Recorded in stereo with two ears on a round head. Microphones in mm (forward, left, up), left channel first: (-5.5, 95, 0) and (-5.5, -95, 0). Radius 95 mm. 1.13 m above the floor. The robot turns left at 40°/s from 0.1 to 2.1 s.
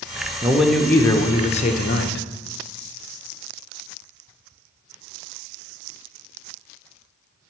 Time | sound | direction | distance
0.4 | a man speaking | 170° right | 0.8 m